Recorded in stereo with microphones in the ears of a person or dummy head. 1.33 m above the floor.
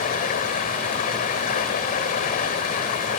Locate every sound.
0.0 s running water: 45° left (ahead or behind), 2.5 m